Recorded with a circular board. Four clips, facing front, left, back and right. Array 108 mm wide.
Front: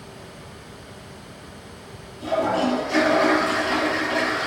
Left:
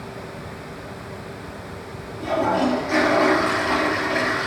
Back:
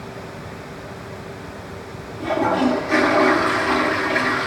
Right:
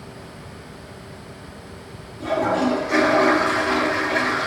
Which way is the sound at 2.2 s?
175° left.